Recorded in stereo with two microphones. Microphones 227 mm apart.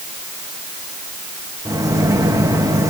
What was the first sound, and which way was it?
A microwave, 15° right (ahead or behind).